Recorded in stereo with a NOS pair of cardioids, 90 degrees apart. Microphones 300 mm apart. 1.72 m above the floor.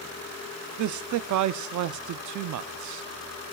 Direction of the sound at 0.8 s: 70° right.